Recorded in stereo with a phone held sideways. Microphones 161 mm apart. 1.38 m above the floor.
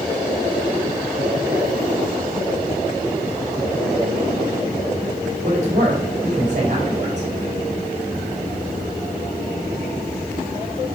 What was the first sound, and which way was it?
A man speaking, 45° right (ahead or behind).